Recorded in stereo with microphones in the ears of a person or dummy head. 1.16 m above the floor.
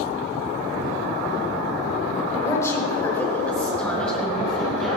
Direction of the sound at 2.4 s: 15° left (ahead or behind).